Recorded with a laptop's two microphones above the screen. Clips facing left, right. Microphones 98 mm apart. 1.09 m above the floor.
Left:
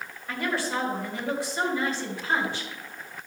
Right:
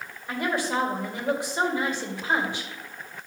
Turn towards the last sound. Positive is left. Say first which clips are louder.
# right 2 dB
turn(degrees=-15)  # may be behind; listen again after turning